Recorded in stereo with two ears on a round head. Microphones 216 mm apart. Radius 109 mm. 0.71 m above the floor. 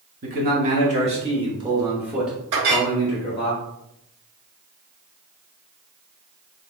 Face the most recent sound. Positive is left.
turn(degrees=-65)  # may be behind; listen again after turning